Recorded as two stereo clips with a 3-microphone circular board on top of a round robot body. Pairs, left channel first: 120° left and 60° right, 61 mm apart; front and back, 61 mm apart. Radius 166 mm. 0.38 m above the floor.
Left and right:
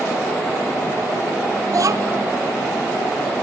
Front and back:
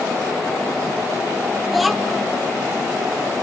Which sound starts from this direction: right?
A child speaking, at 1.7 s.